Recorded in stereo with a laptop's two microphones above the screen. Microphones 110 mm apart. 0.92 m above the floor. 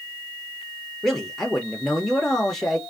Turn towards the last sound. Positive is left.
turn(degrees=0)  # may be behind; listen again after turning